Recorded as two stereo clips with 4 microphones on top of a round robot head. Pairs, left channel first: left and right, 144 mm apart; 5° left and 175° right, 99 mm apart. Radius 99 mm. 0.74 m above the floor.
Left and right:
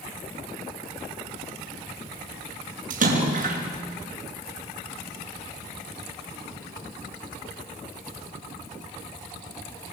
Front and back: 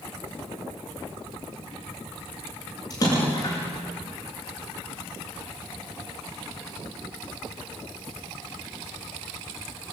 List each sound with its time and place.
2.9 s a splash: 65° right, 6 m